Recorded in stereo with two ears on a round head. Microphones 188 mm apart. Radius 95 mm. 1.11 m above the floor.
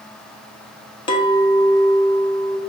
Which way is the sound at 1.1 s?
25° left (ahead or behind).